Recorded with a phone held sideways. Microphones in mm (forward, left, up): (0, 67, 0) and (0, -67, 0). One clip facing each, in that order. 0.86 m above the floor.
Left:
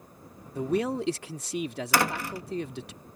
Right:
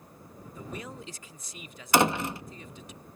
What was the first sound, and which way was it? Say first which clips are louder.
A man speaking: left 14 dB; 75° left (ahead or behind).